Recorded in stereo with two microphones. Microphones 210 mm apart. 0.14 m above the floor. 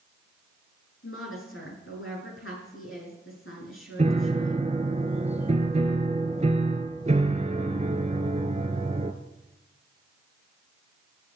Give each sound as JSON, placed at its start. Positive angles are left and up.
{"t": 1.0, "sound": "a woman speaking", "side_deg": 75, "distance_m": 7.0}
{"t": 4.0, "sound": "a piano", "side_deg": -35, "distance_m": 0.9}